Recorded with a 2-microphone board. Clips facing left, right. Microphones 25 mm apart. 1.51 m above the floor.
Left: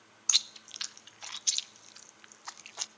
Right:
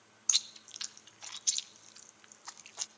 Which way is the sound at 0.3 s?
20° left (ahead or behind).